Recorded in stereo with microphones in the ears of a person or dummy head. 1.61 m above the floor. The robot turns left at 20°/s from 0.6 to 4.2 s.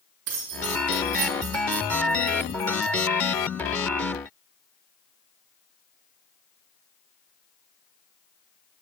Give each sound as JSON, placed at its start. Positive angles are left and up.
{"t": 0.3, "sound": "keys jangling", "side_deg": -55, "distance_m": 1.7}